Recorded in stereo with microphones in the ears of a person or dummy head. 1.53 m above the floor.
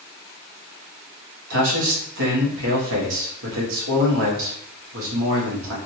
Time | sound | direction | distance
1.5 | a man speaking | 75° right (ahead or behind) | 1.6 m